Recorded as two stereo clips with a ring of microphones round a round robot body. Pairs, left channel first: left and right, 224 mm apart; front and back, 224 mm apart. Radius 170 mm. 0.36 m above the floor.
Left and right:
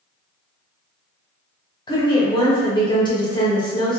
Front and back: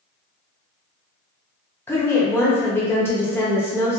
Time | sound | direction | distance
1.9 | a woman speaking | 60° left | 0.9 m